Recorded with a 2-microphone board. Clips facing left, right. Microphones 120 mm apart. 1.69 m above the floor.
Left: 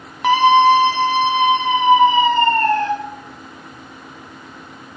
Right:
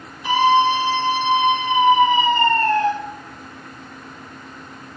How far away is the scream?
About 1.0 m.